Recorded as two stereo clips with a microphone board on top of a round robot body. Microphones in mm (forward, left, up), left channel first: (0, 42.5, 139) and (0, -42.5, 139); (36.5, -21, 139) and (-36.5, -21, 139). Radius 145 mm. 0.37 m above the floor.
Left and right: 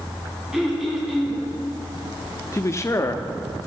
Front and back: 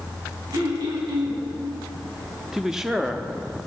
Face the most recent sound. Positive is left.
turn(degrees=100)